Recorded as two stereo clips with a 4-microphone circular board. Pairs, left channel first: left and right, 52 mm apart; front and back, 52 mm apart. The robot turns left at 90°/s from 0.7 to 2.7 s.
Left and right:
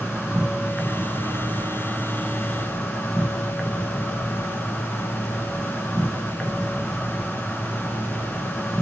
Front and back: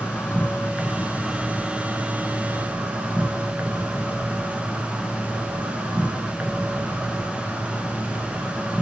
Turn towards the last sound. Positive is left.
turn(degrees=165)